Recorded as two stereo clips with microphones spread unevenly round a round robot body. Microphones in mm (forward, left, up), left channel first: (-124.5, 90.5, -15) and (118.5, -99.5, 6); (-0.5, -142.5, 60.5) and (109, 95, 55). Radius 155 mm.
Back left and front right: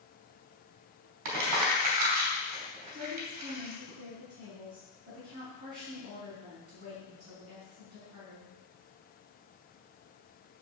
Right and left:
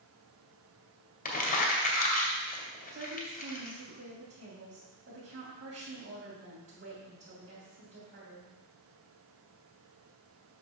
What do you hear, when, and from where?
1.2 s crumpling: 60° right, 2.5 m
2.9 s a woman speaking: 25° left, 3 m